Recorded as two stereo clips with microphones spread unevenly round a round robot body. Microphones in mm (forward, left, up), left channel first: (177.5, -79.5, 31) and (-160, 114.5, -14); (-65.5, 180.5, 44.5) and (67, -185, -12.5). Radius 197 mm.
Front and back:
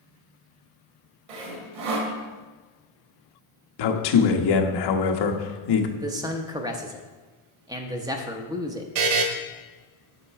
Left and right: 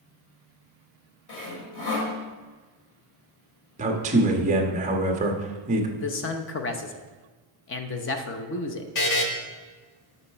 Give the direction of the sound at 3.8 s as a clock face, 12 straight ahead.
12 o'clock.